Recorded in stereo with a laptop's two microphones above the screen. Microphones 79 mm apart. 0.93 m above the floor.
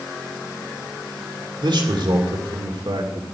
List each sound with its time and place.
1.6 s a man speaking: 70° right (ahead or behind), 2.0 m